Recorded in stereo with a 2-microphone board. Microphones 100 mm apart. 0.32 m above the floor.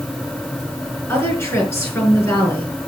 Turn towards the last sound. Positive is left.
turn(degrees=25)  # may be behind; listen again after turning